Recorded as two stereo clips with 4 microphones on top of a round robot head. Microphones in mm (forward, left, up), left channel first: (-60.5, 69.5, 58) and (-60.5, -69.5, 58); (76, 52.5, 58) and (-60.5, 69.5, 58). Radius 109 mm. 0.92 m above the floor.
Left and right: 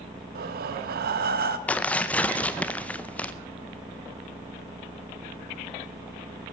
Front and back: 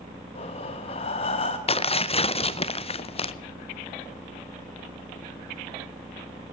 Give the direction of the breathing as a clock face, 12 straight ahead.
2 o'clock.